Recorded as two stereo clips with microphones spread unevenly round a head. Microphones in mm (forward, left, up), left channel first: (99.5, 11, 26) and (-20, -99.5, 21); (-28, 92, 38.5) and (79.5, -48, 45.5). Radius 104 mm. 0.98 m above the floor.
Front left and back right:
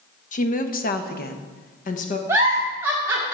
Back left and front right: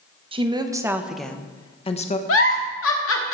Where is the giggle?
145° left, 1.2 m.